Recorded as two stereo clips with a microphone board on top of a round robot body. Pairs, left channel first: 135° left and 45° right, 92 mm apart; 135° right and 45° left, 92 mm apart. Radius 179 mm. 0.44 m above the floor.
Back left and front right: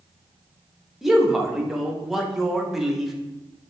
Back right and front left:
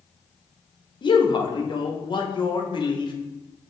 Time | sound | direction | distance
1.0 | a man speaking | 130° right | 1.0 m